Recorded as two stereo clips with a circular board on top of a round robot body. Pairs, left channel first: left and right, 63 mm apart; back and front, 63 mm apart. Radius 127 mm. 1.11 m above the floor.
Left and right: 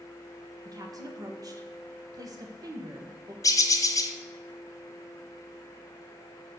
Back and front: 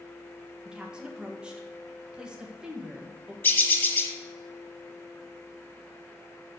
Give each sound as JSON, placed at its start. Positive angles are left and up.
{"t": 0.7, "sound": "a woman speaking", "azimuth_deg": -80, "distance_m": 1.3}
{"t": 3.4, "sound": "a bird", "azimuth_deg": 120, "distance_m": 1.6}